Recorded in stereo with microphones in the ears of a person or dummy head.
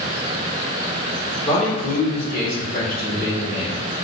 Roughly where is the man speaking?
Left.